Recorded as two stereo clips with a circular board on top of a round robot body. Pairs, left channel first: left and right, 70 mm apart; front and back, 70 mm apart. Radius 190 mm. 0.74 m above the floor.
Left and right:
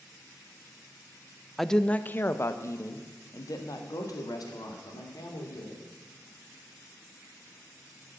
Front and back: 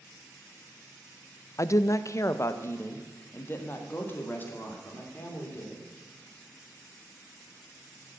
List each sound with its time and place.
1.6 s a woman speaking: straight ahead, 0.7 m; by 5.8 s 65° left, 3 m